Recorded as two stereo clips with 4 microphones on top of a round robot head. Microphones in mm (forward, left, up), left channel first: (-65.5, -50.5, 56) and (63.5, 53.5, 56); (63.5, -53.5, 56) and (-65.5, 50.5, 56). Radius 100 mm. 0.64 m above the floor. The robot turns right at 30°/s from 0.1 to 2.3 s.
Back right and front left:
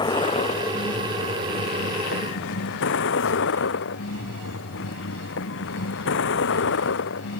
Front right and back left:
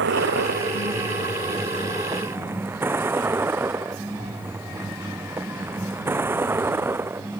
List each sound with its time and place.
0.0 s a vehicle: 155° left; by 7.4 s 140° right